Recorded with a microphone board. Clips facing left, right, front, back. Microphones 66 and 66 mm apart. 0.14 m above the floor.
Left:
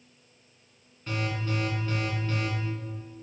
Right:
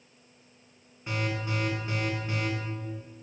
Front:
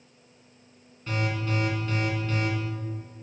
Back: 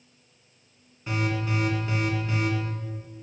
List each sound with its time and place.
1.1 s an alarm: 130° right, 1.8 m